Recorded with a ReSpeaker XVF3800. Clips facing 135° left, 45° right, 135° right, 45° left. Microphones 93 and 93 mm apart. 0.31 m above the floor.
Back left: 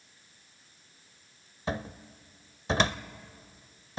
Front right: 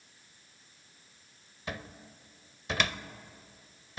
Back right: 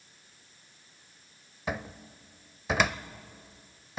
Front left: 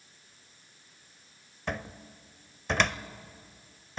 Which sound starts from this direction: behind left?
A cupboard door, at 1.7 s.